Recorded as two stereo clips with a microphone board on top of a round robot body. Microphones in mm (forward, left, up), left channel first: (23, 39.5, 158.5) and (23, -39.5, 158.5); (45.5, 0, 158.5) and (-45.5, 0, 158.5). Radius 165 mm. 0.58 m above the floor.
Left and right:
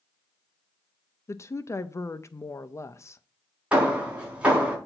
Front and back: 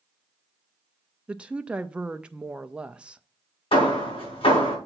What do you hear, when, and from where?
1.3 s a woman speaking: 110° left, 0.7 m
3.7 s hammering: 15° right, 4 m